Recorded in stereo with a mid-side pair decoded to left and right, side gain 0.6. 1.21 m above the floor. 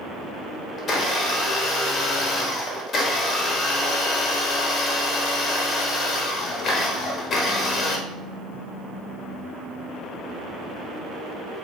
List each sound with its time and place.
0.8 s a blender: 45° left, 1.3 m